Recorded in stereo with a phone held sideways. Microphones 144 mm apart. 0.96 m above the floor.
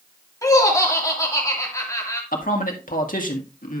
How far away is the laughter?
About 2.5 m.